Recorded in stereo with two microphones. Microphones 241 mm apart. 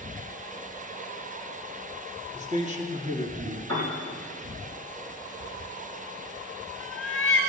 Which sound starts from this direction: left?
A cat meowing, at 5.4 s.